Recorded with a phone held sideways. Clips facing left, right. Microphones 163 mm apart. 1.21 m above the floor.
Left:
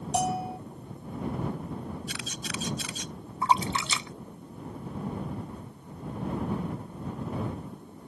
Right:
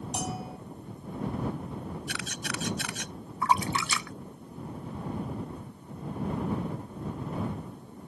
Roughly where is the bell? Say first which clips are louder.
Left 9 dB; left.